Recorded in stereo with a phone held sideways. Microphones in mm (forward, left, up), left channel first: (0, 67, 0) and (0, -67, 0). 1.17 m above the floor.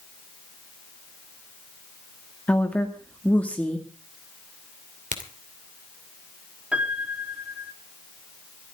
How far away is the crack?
About 2.5 m.